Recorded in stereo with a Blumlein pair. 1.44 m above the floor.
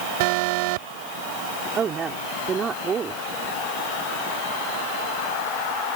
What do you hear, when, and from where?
0.2 s an alarm: 45° right
1.8 s a woman speaking: 20° right